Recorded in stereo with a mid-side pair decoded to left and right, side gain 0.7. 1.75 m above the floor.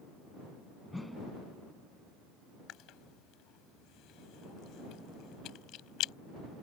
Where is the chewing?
55° left.